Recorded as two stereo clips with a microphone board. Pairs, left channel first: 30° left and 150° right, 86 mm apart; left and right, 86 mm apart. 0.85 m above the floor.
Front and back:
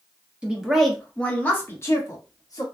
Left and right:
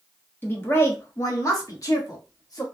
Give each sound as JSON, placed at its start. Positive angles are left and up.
{"t": 0.4, "sound": "a woman speaking", "azimuth_deg": 140, "distance_m": 1.0}